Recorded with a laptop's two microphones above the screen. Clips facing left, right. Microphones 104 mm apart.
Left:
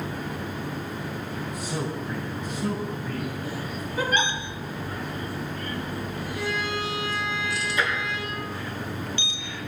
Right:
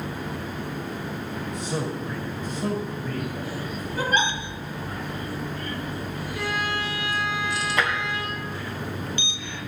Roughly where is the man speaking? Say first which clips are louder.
Right 3 dB; right.